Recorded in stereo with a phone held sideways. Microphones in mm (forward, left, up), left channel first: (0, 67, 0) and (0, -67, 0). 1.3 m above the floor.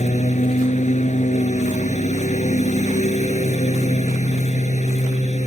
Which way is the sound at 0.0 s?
65° left (ahead or behind).